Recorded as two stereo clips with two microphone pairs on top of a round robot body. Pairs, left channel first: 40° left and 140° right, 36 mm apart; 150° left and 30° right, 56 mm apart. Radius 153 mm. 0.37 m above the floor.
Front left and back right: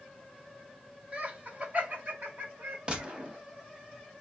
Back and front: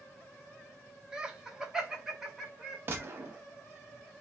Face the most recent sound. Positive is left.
turn(degrees=-80)